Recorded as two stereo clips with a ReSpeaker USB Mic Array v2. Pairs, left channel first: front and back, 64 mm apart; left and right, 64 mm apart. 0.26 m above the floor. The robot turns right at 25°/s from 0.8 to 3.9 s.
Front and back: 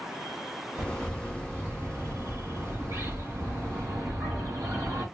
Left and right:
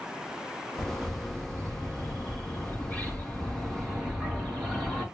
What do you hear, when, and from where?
0.8 s a bird: 100° left, 2.5 m; by 5.0 s straight behind, 2.5 m